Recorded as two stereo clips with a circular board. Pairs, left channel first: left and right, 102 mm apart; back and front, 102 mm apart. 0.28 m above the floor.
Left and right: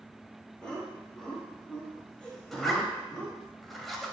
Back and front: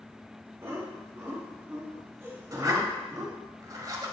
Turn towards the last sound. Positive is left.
turn(degrees=0)